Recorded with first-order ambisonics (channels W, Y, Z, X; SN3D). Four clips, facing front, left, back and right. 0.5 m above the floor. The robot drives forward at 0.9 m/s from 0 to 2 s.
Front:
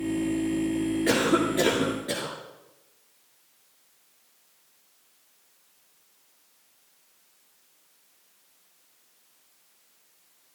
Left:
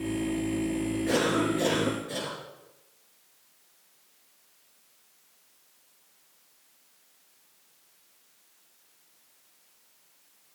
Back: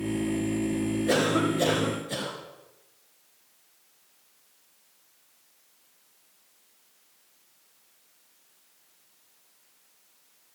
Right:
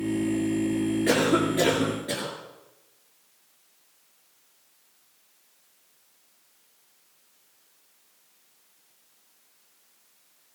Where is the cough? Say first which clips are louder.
Right 3 dB, front 1 dB; 35° right, 9.5 m; by 2.3 s 40° right, 9 m.